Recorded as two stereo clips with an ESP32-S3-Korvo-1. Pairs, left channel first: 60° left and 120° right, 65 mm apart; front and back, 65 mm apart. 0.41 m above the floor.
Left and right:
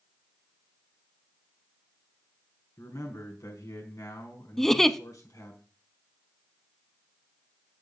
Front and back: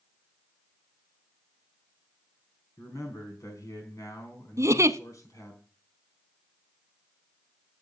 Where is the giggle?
140° left, 0.7 m.